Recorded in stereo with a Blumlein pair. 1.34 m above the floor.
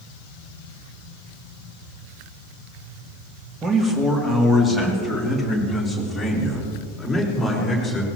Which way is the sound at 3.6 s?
15° right.